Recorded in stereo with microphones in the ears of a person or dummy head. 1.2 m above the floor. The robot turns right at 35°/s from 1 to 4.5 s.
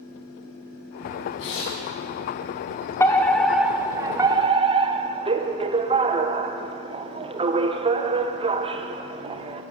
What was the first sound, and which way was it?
Tearing paper, 65° left (ahead or behind).